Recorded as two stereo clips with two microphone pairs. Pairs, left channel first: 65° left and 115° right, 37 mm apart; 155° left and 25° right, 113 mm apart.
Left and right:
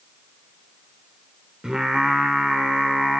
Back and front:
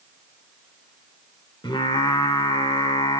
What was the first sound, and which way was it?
Singing, 175° right.